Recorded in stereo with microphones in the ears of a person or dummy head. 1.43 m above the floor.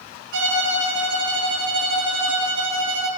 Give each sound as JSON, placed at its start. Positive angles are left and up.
{"t": 0.3, "sound": "a violin", "side_deg": -75, "distance_m": 7.0}